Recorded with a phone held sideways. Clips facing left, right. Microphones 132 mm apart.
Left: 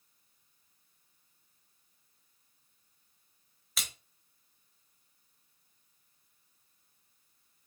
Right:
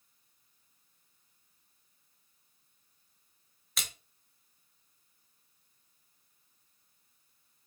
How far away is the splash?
About 0.8 m.